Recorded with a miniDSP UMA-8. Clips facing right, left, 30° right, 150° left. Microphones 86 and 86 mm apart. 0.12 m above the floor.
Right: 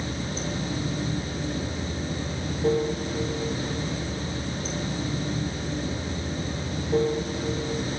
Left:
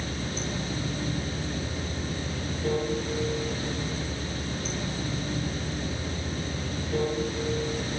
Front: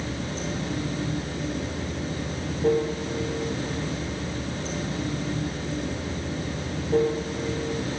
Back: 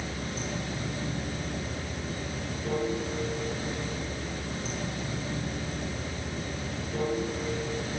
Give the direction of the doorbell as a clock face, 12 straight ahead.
No doorbell in this recording.